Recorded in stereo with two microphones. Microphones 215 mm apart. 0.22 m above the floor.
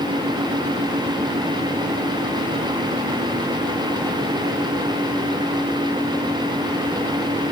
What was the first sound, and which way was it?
Only background noise.